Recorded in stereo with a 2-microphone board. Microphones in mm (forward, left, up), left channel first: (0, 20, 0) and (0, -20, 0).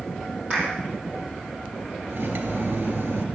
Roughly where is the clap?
Right.